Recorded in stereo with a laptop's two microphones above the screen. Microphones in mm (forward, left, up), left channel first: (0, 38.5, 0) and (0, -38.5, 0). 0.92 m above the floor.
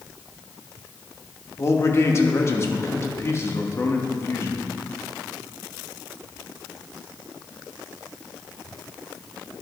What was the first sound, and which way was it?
A man speaking, 35° left (ahead or behind).